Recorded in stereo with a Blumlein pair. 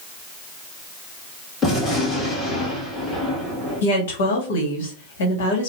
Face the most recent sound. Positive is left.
turn(degrees=55)